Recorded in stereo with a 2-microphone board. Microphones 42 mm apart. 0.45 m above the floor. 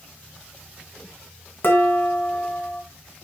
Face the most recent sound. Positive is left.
turn(degrees=45)  # may be behind; listen again after turning